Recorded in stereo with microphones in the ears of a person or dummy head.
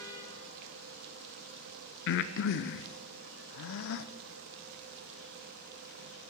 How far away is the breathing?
About 0.6 m.